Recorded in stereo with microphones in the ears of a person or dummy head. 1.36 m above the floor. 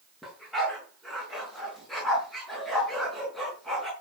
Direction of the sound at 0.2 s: Centre (ahead or behind).